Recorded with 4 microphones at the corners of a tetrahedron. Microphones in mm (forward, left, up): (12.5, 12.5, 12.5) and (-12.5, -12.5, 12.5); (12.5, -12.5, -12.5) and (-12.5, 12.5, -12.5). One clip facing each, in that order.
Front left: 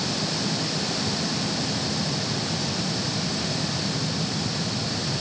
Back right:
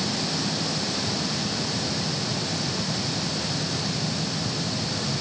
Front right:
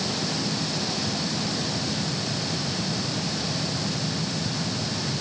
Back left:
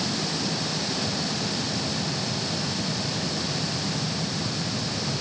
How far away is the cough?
I don't hear a cough.